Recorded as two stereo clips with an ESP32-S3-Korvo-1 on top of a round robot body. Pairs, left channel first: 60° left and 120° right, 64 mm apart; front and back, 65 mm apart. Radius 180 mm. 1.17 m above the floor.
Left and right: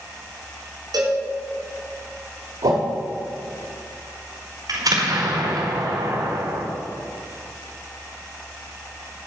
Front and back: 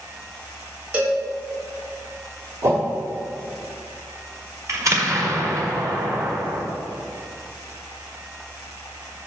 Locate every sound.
0.9 s a cowbell: 120° right, 2.5 m
2.6 s a whoosh: 130° right, 1.3 m
4.7 s an explosion: 140° right, 1.8 m